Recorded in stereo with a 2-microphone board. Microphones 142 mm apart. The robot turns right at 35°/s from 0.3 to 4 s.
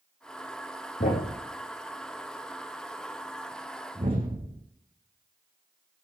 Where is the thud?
70° left (ahead or behind), 4 m; by 4.6 s 35° right (ahead or behind), 4 m.